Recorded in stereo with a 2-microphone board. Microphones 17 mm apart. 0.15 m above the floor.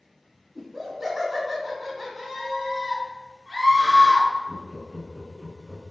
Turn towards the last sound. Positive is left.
turn(degrees=30)  # may be behind; listen again after turning